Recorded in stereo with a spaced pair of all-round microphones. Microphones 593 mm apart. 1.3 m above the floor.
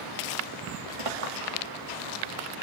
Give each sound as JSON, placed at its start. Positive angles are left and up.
{"t": 1.0, "sound": "a clink", "side_deg": -60, "distance_m": 1.3}